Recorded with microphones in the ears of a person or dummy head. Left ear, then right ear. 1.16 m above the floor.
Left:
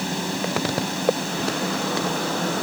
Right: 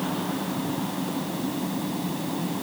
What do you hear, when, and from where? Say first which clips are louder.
0.0 s a fan: left 3 dB; 75° left (ahead or behind)